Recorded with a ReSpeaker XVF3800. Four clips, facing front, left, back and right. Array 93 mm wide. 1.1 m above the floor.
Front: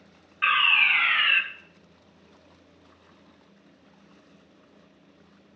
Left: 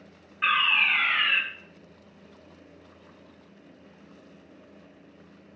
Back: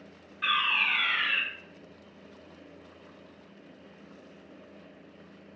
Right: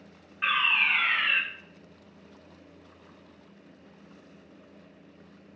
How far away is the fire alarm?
About 1.3 m.